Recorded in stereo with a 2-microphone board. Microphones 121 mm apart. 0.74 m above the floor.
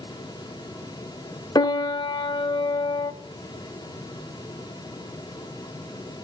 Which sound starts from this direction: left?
A piano, at 1.6 s.